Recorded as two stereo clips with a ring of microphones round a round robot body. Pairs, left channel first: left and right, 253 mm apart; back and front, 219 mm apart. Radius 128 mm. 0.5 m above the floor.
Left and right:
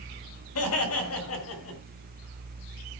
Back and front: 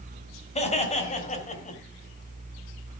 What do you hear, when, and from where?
0.6 s laughter: 120° left, 6 m; by 1.8 s 125° left, 5 m